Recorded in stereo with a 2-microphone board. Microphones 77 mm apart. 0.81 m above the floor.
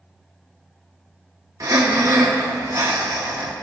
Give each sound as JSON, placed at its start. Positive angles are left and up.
{"t": 1.6, "sound": "breathing", "side_deg": -50, "distance_m": 0.9}